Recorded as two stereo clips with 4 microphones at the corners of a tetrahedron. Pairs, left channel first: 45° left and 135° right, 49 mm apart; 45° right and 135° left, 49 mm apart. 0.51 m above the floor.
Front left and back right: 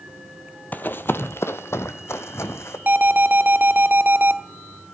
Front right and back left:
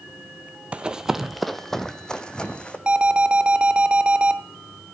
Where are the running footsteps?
80° left, 0.7 m; by 2.8 s 20° left, 1.5 m.